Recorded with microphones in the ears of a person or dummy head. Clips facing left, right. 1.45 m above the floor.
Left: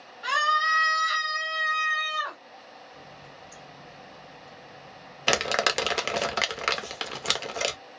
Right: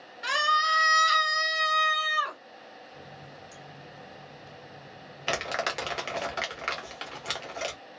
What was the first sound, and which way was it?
A scream, 35° right (ahead or behind).